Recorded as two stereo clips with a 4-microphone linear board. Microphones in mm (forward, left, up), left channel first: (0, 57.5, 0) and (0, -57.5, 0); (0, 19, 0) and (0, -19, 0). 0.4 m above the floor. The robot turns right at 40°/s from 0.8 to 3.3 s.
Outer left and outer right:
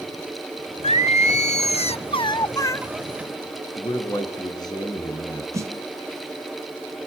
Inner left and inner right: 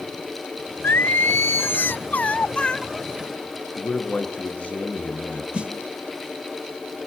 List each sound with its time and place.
0.8 s singing: 80° left, 0.5 m; by 2.8 s 160° left, 0.5 m
3.8 s a man speaking: 35° left (ahead or behind), 5 m
5.5 s a snare drum: 30° right (ahead or behind), 1.6 m